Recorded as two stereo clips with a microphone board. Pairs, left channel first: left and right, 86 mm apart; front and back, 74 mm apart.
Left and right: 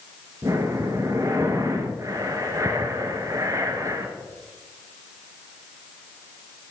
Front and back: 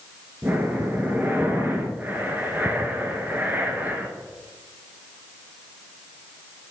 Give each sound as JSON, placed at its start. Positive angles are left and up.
{"t": 0.4, "sound": "breathing", "azimuth_deg": -120, "distance_m": 1.0}